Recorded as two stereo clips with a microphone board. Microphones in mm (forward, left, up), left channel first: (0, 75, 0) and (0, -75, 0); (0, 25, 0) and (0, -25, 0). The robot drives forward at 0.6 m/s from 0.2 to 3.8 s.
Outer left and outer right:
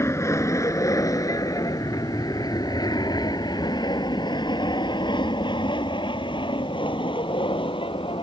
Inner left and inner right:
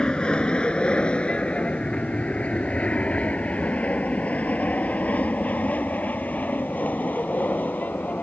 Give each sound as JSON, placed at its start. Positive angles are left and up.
{"t": 0.0, "sound": "an aircraft", "side_deg": 20}